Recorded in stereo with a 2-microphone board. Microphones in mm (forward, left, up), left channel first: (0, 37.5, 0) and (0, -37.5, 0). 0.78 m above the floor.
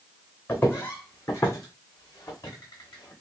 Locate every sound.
0.5 s footsteps: 25° left (ahead or behind), 2 m; by 3.1 s 50° left (ahead or behind), 3 m